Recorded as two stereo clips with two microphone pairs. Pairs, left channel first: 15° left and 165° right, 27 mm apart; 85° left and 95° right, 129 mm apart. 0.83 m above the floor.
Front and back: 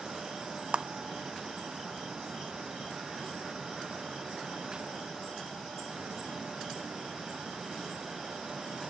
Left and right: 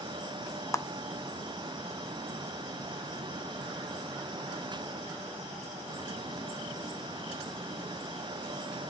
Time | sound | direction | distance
0.7 | a clap | 150° left | 0.6 m